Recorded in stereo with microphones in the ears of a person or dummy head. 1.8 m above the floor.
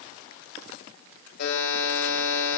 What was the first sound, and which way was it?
A buzzer, 60° left (ahead or behind).